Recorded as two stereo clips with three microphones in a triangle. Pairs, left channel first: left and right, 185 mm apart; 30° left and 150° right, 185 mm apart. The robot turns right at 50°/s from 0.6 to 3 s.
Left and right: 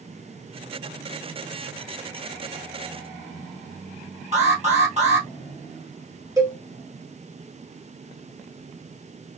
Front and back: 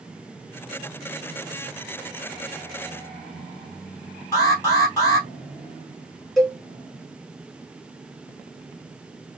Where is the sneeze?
I don't hear a sneeze.